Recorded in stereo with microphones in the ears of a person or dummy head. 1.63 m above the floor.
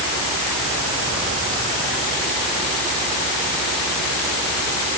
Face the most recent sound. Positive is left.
No sound to turn to.